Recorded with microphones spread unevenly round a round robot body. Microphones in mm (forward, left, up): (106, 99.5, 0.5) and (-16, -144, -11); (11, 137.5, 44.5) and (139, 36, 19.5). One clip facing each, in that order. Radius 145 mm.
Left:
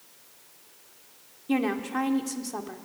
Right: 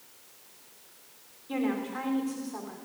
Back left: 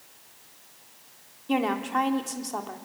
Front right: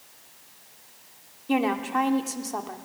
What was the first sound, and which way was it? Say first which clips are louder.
A woman speaking: left 3 dB, front right 1 dB; 45° left.